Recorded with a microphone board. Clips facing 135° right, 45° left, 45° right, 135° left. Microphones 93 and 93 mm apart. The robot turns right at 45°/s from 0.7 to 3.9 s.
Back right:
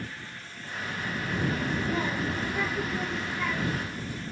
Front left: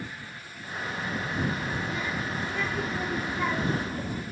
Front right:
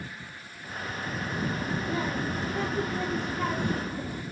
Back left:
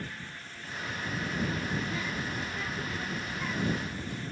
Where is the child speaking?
120° right; by 4.2 s 5° right.